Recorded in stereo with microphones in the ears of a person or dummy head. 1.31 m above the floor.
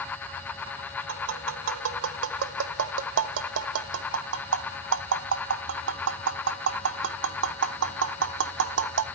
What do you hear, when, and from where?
1.1 s tapping: 75° right (ahead or behind), 0.8 m